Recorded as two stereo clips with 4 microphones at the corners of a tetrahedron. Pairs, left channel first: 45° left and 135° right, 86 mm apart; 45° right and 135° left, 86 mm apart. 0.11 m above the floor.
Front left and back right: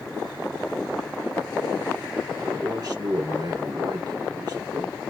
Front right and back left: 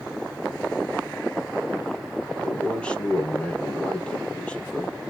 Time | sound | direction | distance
2.4 | a man speaking | 120° right | 2.5 m